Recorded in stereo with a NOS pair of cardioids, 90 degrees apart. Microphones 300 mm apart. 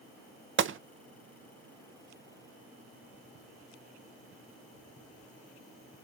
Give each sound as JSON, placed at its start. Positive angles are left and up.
{"t": 0.6, "sound": "a gunshot", "azimuth_deg": -45, "distance_m": 0.6}